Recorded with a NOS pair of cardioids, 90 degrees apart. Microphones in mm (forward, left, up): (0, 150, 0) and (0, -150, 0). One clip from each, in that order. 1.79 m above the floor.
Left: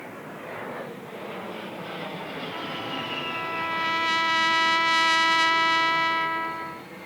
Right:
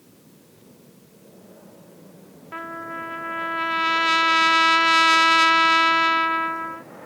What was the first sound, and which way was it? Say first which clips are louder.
A trumpet: right 3 dB; 30° right.